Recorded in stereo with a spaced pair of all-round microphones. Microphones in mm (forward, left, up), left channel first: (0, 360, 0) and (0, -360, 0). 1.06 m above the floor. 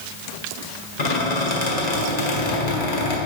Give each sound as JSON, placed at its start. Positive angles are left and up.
{"t": 1.0, "sound": "a squeak", "side_deg": 70, "distance_m": 1.5}